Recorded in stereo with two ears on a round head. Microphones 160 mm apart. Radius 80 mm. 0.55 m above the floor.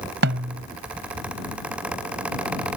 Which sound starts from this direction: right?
A snare drum, at 0.2 s.